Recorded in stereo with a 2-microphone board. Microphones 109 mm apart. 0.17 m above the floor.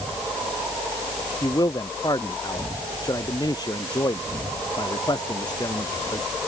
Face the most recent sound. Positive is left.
turn(degrees=35)  # may be behind; listen again after turning